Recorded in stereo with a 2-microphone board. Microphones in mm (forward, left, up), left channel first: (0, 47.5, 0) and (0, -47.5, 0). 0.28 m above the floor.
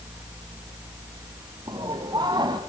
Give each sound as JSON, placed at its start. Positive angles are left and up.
{"t": 1.7, "sound": "laughter", "side_deg": -50, "distance_m": 1.7}